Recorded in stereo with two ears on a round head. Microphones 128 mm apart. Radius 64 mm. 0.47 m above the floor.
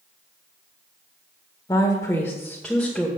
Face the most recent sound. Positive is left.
turn(degrees=0)  # may be behind; listen again after turning